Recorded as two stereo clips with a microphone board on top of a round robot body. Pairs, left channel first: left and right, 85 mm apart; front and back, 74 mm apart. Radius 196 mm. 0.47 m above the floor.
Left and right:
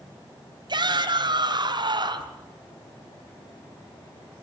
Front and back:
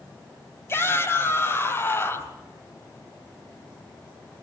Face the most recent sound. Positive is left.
turn(degrees=-60)